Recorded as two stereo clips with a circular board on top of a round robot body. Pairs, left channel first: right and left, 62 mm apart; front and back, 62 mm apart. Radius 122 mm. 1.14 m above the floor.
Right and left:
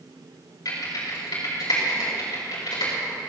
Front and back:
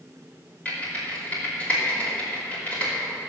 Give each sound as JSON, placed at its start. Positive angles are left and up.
{"t": 0.7, "sound": "typing on a keyboard", "azimuth_deg": -70, "distance_m": 5.5}